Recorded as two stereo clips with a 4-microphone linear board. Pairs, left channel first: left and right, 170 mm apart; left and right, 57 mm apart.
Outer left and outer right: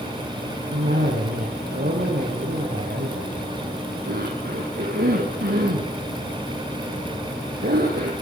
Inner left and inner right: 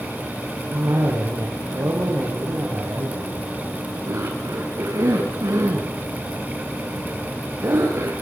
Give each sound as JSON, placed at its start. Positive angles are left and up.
{"t": 0.7, "sound": "a cough", "side_deg": -75, "distance_m": 5.5}